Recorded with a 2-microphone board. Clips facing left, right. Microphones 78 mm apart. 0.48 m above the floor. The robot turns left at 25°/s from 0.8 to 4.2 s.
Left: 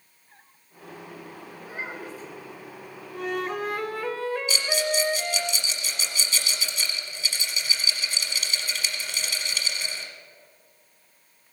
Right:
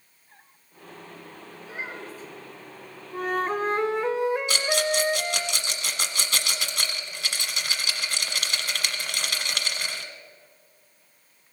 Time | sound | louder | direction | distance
1.6 | a child speaking | even | 40° left (ahead or behind) | 3.5 m
3.1 | a flute | right 3 dB | 40° right (ahead or behind) | 0.5 m
4.5 | a rattle | right 2 dB | 65° right (ahead or behind) | 1.2 m